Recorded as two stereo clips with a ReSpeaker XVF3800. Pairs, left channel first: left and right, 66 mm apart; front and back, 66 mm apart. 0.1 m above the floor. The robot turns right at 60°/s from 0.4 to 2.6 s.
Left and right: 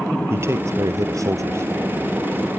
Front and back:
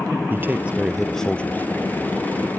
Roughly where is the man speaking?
Behind right.